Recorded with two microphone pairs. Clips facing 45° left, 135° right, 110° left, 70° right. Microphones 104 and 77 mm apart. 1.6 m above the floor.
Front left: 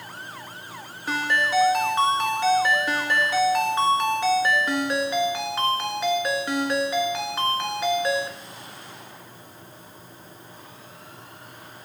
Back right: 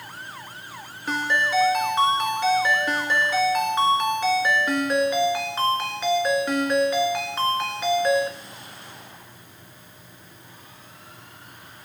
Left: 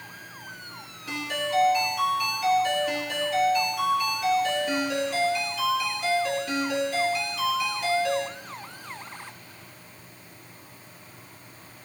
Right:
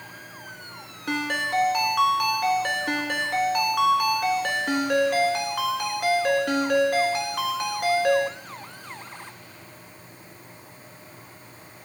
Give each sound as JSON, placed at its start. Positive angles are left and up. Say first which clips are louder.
{"t": 1.1, "sound": "a ringtone", "louder": "even, right 3 dB", "azimuth_deg": -40, "distance_m": 1.6}